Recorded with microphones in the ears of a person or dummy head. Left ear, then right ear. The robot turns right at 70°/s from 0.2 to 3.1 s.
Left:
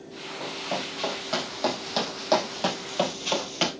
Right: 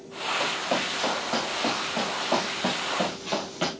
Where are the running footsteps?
35° right (ahead or behind), 5 m; by 3.7 s 35° left (ahead or behind), 2.0 m.